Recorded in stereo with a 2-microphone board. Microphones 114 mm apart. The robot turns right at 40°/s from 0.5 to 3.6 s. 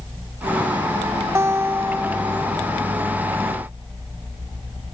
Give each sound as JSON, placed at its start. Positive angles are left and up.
{"t": 1.4, "sound": "a guitar", "azimuth_deg": -55, "distance_m": 0.6}